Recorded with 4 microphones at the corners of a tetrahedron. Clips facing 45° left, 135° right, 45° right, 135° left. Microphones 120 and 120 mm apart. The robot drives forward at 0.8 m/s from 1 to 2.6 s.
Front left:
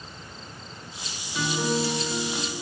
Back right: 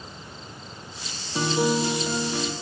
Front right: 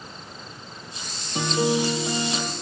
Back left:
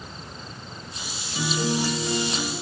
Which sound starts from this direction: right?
A guitar, at 1.4 s.